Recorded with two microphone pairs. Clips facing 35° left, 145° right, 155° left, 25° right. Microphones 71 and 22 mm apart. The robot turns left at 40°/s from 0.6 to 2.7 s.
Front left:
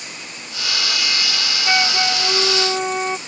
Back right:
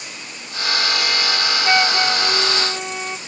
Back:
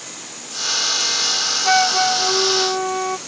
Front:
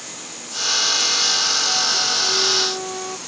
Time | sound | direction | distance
1.6 | a flute | 140° left | ?